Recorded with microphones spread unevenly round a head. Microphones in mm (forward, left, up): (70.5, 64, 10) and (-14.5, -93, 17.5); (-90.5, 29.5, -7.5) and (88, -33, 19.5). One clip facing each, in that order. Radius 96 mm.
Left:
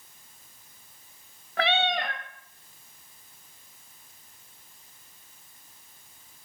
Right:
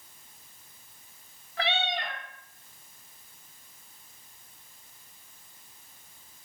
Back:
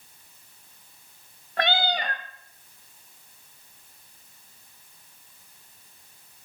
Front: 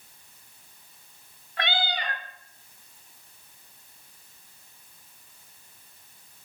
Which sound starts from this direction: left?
A cat meowing, at 1.6 s.